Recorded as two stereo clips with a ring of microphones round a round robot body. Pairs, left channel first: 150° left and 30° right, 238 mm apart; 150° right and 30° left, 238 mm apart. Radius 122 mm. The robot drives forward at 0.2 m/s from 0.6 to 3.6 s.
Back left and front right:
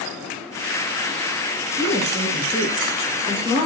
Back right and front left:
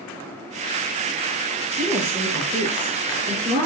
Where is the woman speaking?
85° left, 3.5 m; by 3.7 s 90° left, 3.5 m.